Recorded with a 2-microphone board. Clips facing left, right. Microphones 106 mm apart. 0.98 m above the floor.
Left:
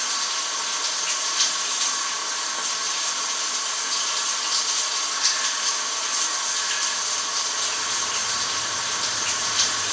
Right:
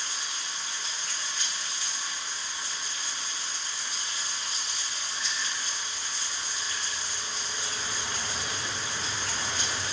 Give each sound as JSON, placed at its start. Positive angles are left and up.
{"t": 0.0, "sound": "running water", "side_deg": 75, "distance_m": 0.7}